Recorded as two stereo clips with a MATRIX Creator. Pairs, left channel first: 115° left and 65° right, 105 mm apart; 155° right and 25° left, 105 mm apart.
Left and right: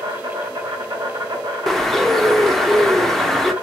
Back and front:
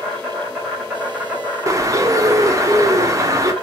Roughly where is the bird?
Ahead left.